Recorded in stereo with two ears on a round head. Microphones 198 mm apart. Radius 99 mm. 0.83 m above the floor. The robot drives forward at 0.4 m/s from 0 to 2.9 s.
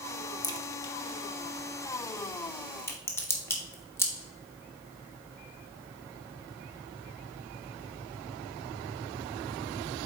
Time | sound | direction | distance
0.4 | a crack | 20° left (ahead or behind) | 0.8 m